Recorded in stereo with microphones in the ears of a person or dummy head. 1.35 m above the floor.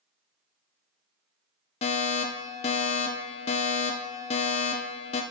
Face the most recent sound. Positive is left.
turn(degrees=25)  # may be behind; listen again after turning